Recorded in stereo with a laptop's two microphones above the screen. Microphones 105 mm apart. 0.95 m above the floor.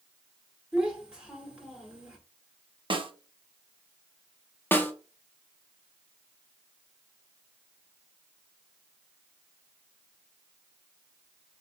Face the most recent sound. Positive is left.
turn(degrees=20)  # may be behind; listen again after turning